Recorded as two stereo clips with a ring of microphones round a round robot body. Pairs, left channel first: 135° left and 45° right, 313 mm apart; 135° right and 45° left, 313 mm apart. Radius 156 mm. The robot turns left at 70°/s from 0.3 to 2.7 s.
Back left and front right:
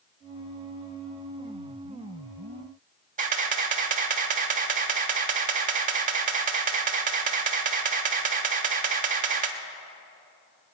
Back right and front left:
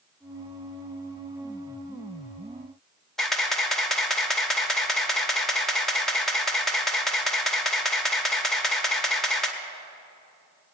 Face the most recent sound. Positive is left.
turn(degrees=-50)